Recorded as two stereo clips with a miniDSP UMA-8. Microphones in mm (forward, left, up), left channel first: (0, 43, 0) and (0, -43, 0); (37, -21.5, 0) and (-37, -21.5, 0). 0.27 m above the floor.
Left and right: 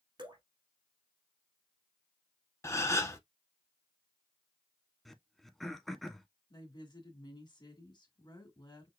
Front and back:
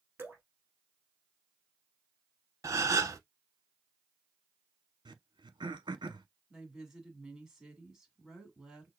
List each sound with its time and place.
0.2 s dripping: 120° right, 2.5 m
2.6 s a gasp: 140° left, 0.7 m
5.0 s throat clearing: straight behind, 0.7 m
6.5 s a woman speaking: 100° left, 1.8 m